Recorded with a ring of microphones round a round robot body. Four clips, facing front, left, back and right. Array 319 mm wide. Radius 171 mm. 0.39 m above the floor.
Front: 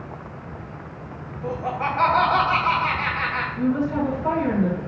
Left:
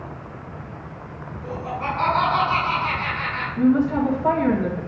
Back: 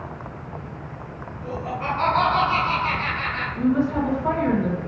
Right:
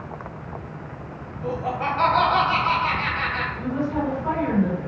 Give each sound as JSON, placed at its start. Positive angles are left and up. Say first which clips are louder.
{"t": 1.4, "sound": "laughter", "louder": "right 2 dB, front 2 dB", "azimuth_deg": -30, "distance_m": 3.0}
{"t": 3.6, "sound": "a woman speaking", "louder": "left 9 dB, back 2 dB", "azimuth_deg": 90, "distance_m": 3.5}